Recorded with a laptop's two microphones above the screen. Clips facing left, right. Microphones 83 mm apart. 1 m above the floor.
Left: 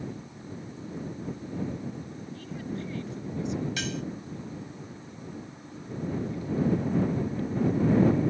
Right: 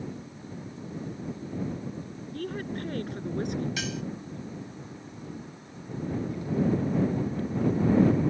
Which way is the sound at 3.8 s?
5° right (ahead or behind).